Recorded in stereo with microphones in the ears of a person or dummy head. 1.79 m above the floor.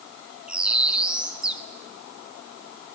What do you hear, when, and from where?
0.5 s a bird: 15° right (ahead or behind), 1.0 m